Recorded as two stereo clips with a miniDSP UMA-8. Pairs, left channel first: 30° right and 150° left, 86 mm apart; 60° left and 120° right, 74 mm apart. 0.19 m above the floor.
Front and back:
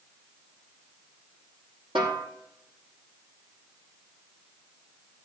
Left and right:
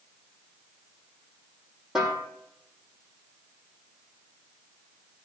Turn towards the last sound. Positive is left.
turn(degrees=155)